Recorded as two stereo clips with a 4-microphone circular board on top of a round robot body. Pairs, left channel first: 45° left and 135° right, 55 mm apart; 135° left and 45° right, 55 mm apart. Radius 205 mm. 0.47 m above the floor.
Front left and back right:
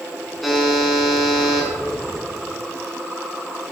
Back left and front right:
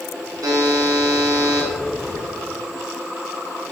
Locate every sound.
0.4 s a buzzer: 45° right, 4 m